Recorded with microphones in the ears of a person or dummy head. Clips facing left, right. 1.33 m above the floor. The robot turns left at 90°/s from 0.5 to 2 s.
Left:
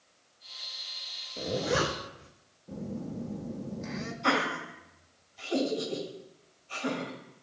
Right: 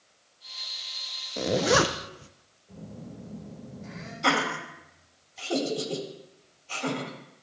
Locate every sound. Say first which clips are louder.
1.4 s a zipper: right 6 dB; 65° right (ahead or behind), 0.7 m; by 2.3 s 50° right (ahead or behind), 0.7 m
2.7 s a phone buzzing: left 6 dB; 60° left (ahead or behind), 1.3 m
4.2 s laughter: right 2 dB; 85° right, 4 m